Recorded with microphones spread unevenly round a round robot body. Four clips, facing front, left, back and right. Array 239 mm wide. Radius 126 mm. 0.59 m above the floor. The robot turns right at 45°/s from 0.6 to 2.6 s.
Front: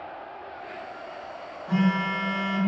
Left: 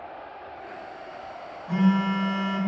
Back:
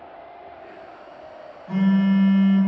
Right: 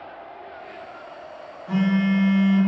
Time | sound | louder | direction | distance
1.7 | a phone buzzing | right 2 dB, back 5 dB | 40° right | 1.8 m